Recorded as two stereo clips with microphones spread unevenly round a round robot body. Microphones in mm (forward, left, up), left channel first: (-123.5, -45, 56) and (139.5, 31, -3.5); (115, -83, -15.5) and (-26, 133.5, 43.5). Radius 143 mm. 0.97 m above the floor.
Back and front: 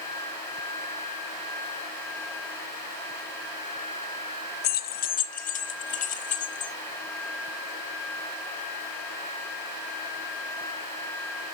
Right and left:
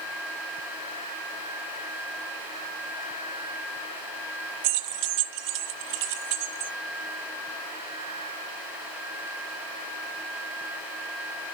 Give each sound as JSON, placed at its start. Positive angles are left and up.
{"t": 4.6, "sound": "keys jangling", "azimuth_deg": 140, "distance_m": 0.5}